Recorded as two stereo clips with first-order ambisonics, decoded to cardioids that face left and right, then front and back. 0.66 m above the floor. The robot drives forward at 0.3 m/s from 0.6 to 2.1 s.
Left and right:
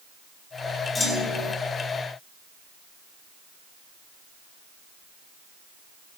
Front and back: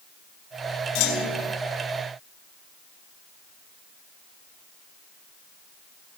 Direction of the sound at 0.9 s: 10° left.